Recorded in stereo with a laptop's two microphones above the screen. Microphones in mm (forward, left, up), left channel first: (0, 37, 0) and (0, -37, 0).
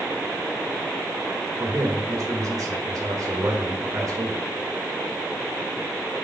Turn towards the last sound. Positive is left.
turn(degrees=-55)  # may be behind; listen again after turning